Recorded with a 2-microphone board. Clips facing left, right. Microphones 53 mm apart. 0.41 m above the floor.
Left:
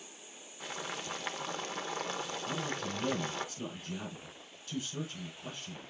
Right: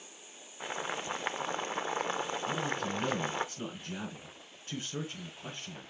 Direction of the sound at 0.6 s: 20° right (ahead or behind).